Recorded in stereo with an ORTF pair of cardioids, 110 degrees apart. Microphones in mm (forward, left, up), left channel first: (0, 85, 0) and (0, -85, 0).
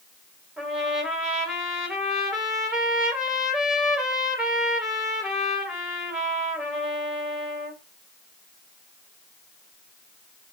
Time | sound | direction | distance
0.6 | a trumpet | 5° right | 3.5 m